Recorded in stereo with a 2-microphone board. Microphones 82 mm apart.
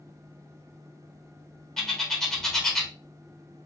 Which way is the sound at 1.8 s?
5° left (ahead or behind).